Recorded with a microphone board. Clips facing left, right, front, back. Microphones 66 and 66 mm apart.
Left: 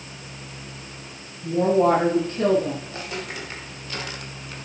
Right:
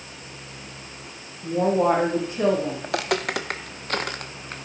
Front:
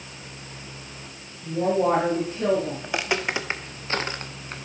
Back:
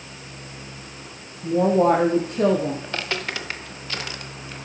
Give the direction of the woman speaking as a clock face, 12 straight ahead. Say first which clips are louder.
Left 2 dB, back 5 dB; 5 o'clock.